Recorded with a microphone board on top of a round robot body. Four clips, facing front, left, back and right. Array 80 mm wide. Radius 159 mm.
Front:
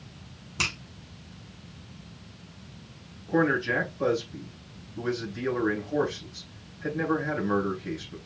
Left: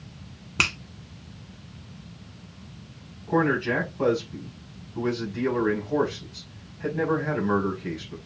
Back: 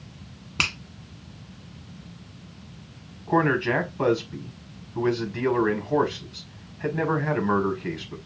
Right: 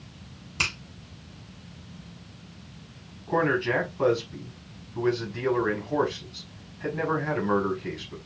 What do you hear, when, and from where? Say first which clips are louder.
0.6 s a finger snap: left 4 dB, back 3 dB; 115° left, 1.5 m
3.3 s a man speaking: left 1 dB, back 3 dB; 175° left, 4 m